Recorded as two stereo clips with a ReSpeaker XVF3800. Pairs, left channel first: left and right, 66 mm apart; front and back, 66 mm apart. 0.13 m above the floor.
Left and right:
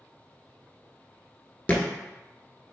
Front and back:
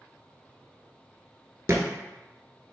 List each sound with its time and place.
1.7 s a thud: 150° left, 0.7 m